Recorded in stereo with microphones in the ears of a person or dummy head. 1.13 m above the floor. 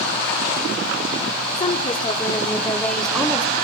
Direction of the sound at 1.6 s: 35° left (ahead or behind).